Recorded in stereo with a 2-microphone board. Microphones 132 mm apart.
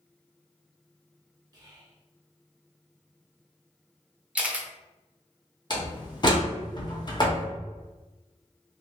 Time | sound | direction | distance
1.5 | whispering | 30° right (ahead or behind) | 0.8 m
4.3 | a camera shutter | 10° right (ahead or behind) | 0.5 m
5.7 | a door slam | 35° left (ahead or behind) | 0.8 m